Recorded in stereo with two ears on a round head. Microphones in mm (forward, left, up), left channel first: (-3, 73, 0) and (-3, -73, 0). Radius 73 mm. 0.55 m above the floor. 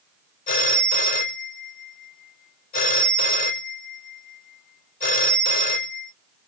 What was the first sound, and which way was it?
A phone ringing, 50° left (ahead or behind).